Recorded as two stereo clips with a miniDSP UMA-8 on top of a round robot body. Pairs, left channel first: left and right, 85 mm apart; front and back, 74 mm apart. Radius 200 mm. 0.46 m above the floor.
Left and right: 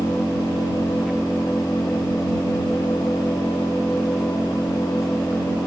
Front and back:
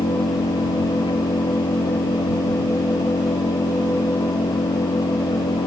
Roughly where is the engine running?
Ahead.